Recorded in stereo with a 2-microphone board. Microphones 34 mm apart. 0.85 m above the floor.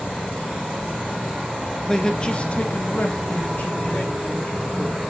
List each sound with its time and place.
1.9 s a man speaking: 15° left (ahead or behind), 0.8 m; by 5.0 s 50° left (ahead or behind), 2 m